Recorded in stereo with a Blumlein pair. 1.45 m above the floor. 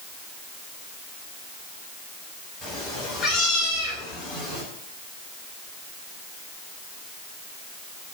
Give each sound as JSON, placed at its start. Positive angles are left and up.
{"t": 2.6, "sound": "a cat meowing", "azimuth_deg": 20, "distance_m": 3.5}